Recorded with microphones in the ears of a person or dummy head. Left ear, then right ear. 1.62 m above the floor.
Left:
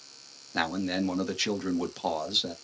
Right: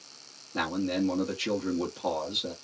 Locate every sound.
0.5 s a man speaking: 40° left (ahead or behind), 1.0 m